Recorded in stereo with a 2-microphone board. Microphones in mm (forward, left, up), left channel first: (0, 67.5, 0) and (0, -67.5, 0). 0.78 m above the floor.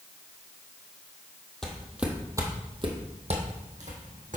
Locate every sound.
1.6 s footsteps: 5° left (ahead or behind), 1.5 m; by 4.4 s 70° right (ahead or behind), 2.5 m